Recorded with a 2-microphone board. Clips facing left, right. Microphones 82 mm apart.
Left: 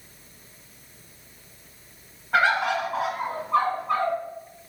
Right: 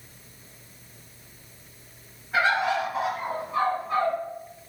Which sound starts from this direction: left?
A bird, at 2.3 s.